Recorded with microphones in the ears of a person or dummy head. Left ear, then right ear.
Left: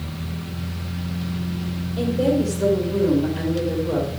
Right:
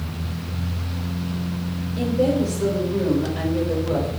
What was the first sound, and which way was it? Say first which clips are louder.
A woman speaking: even; 5° left (ahead or behind).